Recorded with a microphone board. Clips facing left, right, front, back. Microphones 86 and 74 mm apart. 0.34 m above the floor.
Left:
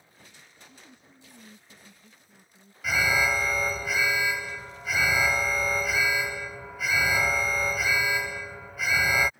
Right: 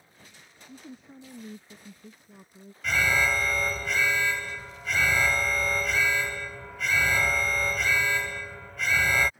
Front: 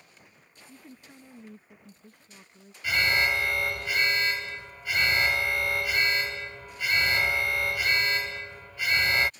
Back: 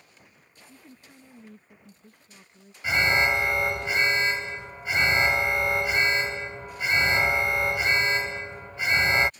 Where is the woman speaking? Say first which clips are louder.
Right 8 dB, front 2 dB; 85° right; by 2.7 s 90° right.